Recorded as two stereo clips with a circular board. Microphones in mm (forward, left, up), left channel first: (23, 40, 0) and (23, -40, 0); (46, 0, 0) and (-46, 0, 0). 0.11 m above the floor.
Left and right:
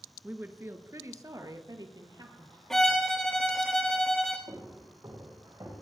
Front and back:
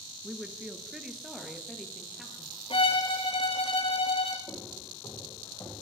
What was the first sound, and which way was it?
A woman speaking, 125° right.